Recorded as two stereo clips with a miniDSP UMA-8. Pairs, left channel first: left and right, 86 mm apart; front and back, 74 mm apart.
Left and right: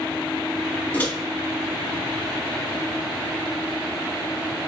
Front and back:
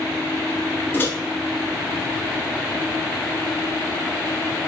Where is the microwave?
35° left, 1.0 m.